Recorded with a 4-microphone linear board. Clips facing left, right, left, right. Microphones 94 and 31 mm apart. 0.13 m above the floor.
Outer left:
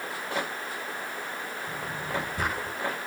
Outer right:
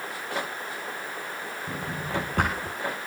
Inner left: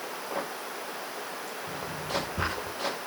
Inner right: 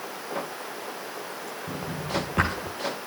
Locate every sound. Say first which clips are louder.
1.7 s a drawer: outer right 2 dB, inner right 3 dB; 70° right (ahead or behind), 6 m